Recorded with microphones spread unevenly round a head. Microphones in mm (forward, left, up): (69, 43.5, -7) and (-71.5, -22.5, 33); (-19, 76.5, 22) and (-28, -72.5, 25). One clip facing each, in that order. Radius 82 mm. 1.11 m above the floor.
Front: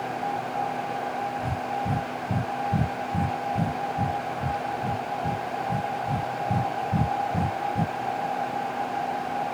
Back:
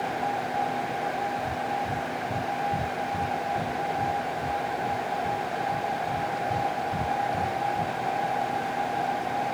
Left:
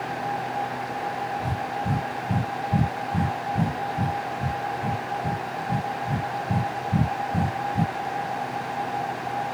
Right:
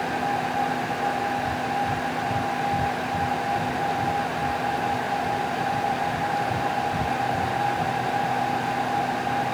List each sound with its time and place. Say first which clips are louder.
1.4 s breathing: even, right 3 dB; 75° left